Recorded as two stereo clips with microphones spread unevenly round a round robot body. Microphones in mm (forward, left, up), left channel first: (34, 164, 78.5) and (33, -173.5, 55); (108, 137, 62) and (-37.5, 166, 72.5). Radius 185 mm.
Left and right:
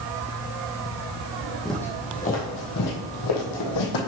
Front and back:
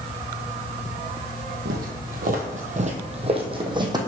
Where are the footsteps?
Straight behind, 1.2 m; by 4.1 s 105° left, 1.7 m.